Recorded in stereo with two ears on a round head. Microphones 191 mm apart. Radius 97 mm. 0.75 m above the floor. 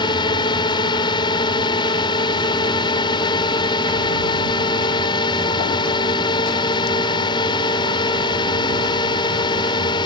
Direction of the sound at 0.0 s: 20° left (ahead or behind).